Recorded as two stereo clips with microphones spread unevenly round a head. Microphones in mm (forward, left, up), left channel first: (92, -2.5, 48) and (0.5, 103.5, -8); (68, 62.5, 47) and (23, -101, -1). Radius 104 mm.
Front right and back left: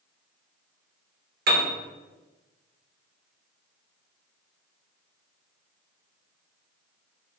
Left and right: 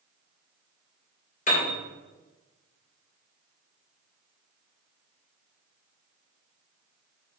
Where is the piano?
125° left, 1.6 m.